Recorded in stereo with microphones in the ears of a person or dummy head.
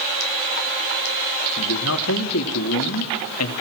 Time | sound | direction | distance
1.6 | a man speaking | 80° left | 2.5 m